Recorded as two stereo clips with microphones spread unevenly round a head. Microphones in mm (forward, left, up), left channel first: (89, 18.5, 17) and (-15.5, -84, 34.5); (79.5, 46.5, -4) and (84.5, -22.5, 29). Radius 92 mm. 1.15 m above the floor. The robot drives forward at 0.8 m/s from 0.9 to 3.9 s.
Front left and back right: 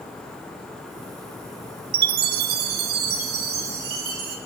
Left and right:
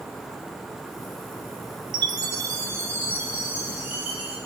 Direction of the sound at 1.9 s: 145° right.